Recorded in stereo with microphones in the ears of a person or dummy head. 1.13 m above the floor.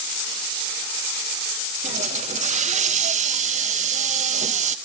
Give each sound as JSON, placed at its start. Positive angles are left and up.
{"t": 1.8, "sound": "a hiss", "side_deg": -40, "distance_m": 0.8}